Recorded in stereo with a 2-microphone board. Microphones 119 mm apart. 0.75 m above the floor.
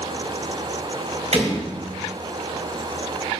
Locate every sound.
1.3 s a door slam: 70° right (ahead or behind), 2.5 m